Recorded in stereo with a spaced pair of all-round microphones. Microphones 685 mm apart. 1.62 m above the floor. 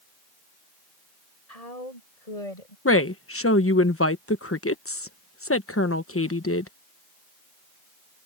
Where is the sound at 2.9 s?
20° left (ahead or behind).